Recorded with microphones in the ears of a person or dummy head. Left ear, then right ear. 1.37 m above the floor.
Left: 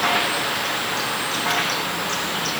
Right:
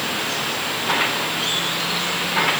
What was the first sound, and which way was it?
Only background noise.